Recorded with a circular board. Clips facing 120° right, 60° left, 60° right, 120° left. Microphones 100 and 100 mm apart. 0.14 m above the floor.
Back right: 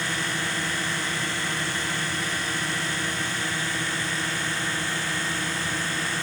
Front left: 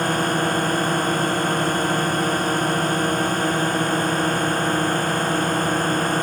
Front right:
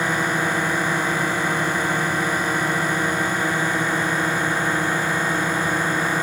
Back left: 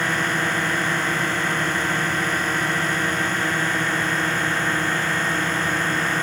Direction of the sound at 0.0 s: 15° left.